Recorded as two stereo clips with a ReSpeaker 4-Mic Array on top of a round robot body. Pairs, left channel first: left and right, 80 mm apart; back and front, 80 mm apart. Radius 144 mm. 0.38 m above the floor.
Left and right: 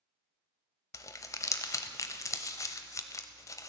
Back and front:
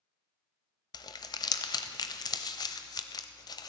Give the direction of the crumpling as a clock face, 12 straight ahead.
7 o'clock.